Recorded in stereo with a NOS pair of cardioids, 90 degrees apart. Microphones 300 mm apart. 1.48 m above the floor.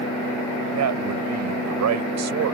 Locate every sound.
0.7 s a man speaking: 65° right